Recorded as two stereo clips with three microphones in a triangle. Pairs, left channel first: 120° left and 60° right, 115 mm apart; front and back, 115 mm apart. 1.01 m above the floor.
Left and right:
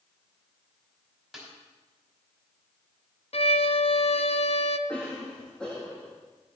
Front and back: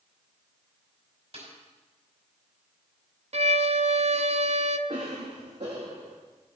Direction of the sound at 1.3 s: 150° right.